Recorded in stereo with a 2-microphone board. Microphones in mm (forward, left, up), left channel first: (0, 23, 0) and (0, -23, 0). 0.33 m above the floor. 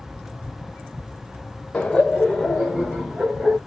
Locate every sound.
1.7 s laughter: 15° left (ahead or behind), 0.9 m; by 3.6 s 35° right (ahead or behind), 1.7 m